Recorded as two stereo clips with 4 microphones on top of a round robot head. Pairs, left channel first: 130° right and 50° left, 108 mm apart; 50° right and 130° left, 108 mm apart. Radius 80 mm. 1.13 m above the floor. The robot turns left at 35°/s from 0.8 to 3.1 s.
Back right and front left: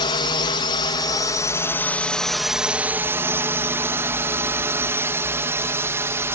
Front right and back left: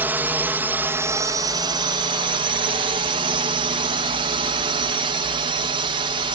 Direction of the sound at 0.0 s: 160° right.